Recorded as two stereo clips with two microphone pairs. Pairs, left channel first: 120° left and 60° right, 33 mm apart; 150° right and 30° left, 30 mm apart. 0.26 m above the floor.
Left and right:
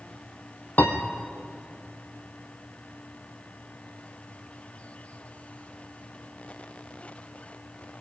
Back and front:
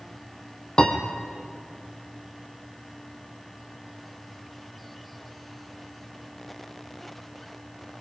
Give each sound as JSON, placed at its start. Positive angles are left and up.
{"t": 0.8, "sound": "a piano", "azimuth_deg": 155, "distance_m": 2.5}